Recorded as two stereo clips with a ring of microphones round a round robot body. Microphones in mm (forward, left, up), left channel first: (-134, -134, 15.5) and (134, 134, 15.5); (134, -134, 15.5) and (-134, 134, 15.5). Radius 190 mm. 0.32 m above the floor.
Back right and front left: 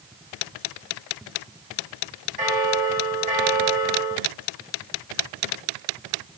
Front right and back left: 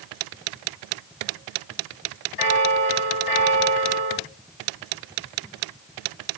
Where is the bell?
25° right, 4.5 m.